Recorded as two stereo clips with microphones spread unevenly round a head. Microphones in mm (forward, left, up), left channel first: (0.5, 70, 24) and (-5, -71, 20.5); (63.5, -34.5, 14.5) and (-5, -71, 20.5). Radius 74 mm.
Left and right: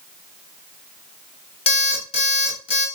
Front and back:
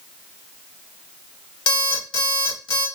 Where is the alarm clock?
40° left, 1.6 m.